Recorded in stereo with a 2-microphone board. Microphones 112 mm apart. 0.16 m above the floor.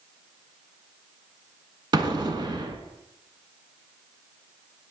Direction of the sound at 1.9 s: 45° right (ahead or behind).